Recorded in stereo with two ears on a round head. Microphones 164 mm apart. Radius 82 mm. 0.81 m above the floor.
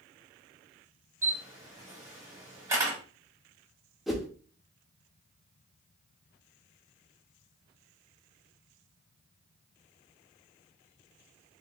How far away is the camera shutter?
About 1.5 m.